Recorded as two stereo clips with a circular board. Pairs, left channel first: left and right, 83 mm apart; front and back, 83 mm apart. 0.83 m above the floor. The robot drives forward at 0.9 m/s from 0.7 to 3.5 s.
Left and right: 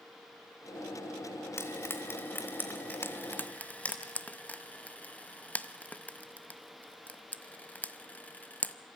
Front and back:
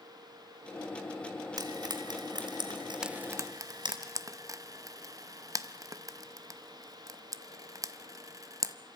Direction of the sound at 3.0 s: 105° left.